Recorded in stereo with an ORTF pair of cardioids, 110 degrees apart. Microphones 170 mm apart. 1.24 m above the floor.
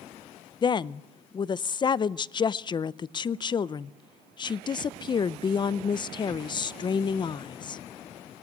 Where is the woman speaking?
30° left, 0.5 m.